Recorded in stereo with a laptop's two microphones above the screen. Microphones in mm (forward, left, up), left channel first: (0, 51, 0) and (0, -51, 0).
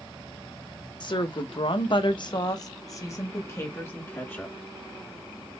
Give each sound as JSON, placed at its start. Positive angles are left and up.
{"t": 1.0, "sound": "a woman speaking", "side_deg": 50, "distance_m": 0.7}